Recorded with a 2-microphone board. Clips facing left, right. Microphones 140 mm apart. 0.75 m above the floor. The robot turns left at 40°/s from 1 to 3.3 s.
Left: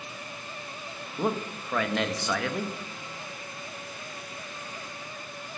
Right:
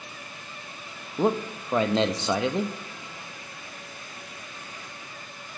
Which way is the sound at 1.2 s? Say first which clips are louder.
Right 5 dB; 25° right (ahead or behind).